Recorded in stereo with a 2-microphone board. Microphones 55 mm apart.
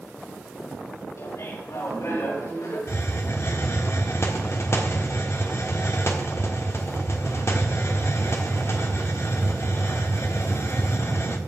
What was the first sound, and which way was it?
Laughter, 70° left (ahead or behind).